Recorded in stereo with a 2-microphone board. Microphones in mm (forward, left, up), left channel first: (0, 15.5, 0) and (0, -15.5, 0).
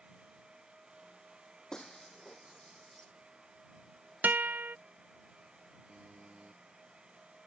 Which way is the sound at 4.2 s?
70° right (ahead or behind).